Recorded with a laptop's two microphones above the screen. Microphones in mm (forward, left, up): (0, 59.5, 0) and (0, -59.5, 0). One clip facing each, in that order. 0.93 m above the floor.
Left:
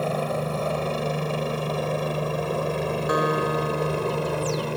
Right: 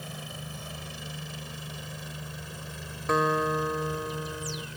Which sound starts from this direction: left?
A helicopter, at 0.0 s.